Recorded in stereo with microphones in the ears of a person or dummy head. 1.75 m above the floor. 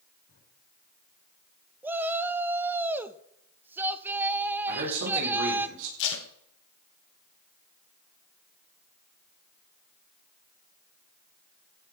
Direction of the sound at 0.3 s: 65° left (ahead or behind).